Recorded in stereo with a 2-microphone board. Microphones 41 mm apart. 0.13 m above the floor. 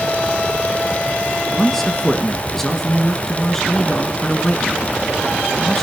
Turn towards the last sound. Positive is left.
turn(degrees=10)  # may be behind; listen again after turning